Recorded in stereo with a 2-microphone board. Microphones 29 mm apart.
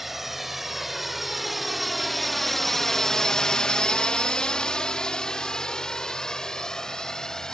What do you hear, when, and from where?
0.0 s a drone: 5° right (ahead or behind); by 7.5 s 20° left (ahead or behind)